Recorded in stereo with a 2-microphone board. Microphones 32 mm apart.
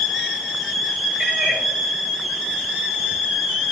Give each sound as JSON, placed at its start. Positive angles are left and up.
{"t": 1.2, "sound": "a cat meowing", "side_deg": -15, "distance_m": 4.5}